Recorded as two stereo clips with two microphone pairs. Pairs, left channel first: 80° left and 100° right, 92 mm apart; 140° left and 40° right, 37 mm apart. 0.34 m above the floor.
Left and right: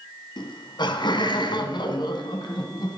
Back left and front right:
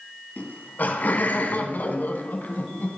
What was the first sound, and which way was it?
Laughter, 110° left.